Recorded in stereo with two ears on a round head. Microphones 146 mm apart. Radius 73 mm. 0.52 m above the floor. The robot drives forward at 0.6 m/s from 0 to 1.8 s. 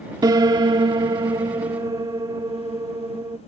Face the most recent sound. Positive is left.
turn(degrees=-25)  # may be behind; listen again after turning